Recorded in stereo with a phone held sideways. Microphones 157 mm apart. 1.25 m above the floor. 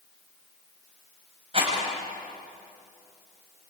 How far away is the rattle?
About 7.5 m.